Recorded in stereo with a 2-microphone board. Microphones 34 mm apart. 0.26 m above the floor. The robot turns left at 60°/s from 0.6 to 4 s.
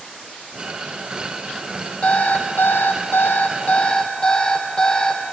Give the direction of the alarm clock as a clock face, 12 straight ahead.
7 o'clock.